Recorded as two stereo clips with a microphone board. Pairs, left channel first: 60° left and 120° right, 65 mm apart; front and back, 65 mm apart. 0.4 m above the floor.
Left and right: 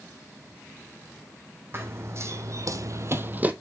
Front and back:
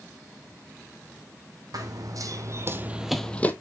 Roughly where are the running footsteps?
Behind.